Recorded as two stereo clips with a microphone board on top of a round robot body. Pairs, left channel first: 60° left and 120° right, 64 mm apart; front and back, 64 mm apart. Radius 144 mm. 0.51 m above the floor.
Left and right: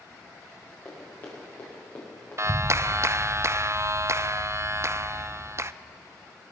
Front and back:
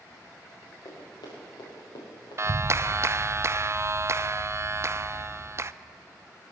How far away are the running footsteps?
About 6 m.